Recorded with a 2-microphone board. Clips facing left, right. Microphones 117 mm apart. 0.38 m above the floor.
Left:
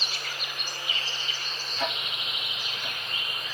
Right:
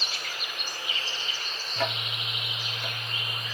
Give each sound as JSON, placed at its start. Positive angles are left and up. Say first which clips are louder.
{"t": 1.8, "sound": "ticking", "louder": "right 2 dB", "side_deg": -70, "distance_m": 1.2}